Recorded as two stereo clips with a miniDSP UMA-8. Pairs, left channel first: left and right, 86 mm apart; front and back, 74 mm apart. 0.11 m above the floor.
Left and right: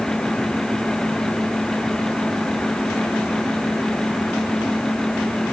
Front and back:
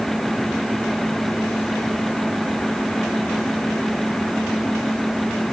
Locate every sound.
Only background noise.